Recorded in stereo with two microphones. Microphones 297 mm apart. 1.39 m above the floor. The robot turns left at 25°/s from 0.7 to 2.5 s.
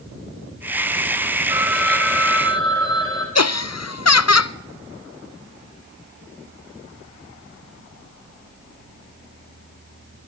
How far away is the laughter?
About 0.5 m.